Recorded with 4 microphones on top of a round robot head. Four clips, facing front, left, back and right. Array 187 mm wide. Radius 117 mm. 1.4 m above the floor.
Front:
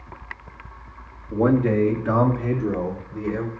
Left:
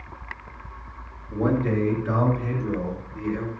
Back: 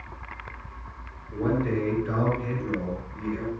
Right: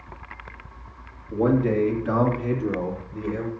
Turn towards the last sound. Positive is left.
turn(degrees=-25)